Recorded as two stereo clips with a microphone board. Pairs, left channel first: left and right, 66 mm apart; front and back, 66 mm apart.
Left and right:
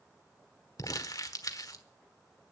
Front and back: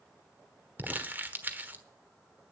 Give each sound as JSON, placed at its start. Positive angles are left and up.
{"t": 0.8, "sound": "crumpling", "azimuth_deg": 120, "distance_m": 1.3}